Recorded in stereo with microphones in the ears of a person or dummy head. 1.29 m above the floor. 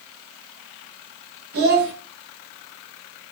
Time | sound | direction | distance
1.5 | a child speaking | 60° right (ahead or behind) | 1.0 m